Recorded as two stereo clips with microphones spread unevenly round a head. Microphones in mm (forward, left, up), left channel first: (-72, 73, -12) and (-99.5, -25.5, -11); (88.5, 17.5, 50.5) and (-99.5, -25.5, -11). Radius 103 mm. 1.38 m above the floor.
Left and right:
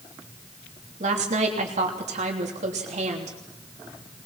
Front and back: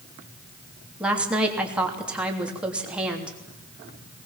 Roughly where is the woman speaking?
Right.